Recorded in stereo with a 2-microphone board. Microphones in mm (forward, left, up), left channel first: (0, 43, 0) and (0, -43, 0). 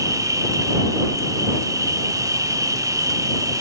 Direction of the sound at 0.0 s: 40° right (ahead or behind).